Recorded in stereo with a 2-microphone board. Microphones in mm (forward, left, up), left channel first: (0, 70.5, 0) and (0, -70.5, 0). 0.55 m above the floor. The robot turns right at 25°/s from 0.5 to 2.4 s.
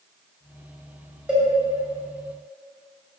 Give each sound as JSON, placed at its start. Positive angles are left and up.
{"t": 1.3, "sound": "a cowbell", "side_deg": -5, "distance_m": 2.5}